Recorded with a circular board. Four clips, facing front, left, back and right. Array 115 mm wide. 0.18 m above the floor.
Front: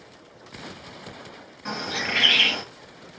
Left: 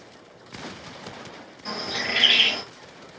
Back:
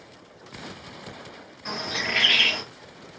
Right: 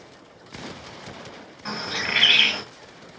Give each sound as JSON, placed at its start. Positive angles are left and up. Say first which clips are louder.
{"t": 1.6, "sound": "a bird", "louder": "right 1 dB, front 1 dB", "azimuth_deg": -70, "distance_m": 2.0}